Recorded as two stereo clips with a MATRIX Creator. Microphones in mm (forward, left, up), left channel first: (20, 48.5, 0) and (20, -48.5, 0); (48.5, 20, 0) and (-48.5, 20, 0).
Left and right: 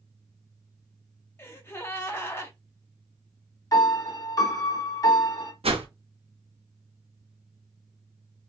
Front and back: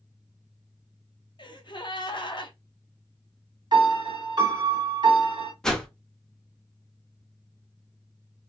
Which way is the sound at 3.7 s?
140° left.